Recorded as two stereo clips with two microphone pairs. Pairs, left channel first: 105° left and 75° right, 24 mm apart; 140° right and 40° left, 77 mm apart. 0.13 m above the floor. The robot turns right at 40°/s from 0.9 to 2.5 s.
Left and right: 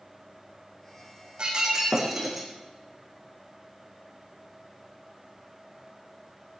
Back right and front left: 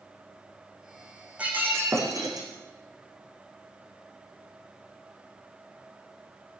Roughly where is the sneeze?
I don't hear a sneeze.